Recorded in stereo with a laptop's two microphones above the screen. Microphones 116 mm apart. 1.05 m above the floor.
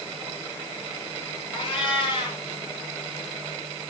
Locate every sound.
1.5 s a cat meowing: 50° left (ahead or behind), 3.5 m